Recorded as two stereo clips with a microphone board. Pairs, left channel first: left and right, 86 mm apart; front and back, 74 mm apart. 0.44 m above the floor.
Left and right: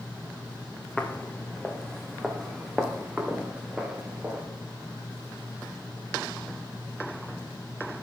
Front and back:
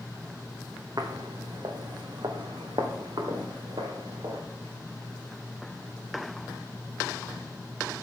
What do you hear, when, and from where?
1.0 s footsteps: 160° left, 1.6 m; by 4.4 s 170° right, 3 m